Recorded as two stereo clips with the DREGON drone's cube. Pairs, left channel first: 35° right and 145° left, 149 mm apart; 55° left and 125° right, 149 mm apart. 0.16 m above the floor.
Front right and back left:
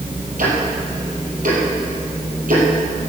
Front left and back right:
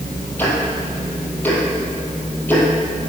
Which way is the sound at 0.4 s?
135° left.